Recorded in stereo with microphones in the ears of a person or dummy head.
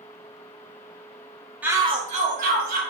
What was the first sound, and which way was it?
A shout, 10° right (ahead or behind).